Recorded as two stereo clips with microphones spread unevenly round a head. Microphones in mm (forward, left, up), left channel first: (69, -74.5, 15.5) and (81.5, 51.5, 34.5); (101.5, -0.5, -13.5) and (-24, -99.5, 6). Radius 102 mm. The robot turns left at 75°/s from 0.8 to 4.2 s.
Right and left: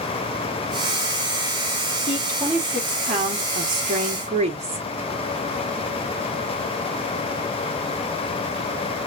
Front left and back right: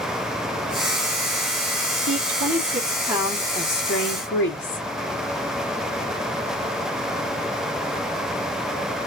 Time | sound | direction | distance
2.1 | a woman speaking | 145° right | 1.4 m